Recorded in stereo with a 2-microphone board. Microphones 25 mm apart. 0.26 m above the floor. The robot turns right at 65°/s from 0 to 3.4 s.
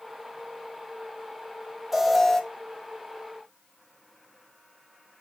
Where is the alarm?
15° right, 1.3 m; by 2.4 s 20° left, 1.3 m.